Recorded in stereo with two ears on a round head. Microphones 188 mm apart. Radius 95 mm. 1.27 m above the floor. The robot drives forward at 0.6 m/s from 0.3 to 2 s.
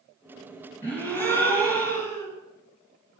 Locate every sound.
0.8 s a gasp: 10° left (ahead or behind), 3.5 m